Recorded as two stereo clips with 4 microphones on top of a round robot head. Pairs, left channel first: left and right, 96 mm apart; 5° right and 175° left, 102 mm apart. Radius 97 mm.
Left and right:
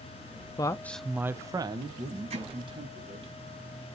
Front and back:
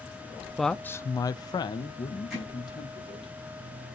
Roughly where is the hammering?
Right.